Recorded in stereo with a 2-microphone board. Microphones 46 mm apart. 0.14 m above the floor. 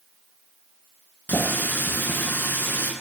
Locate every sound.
1.3 s a running tap: 45° left (ahead or behind), 1.2 m